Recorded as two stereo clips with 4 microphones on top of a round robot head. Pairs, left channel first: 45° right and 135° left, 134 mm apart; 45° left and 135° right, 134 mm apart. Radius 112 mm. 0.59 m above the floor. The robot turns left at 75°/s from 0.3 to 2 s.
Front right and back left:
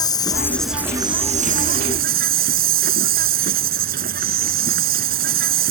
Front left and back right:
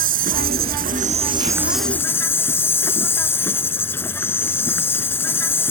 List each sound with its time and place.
0.0 s an insect: 110° right; by 5.7 s 120° left